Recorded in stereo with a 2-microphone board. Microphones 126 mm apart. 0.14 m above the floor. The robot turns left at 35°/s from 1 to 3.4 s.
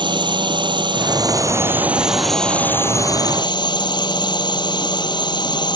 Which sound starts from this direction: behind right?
A drone, at 0.0 s.